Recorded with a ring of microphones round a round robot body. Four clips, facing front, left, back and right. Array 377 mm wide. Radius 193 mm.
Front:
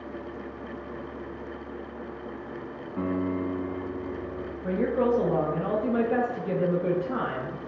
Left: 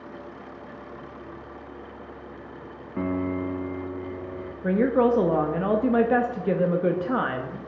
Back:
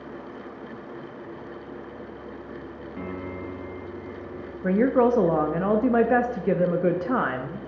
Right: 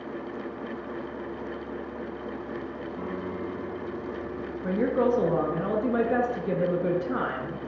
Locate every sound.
3.0 s a piano: 80° left, 0.7 m
4.6 s a woman speaking: 150° left, 0.6 m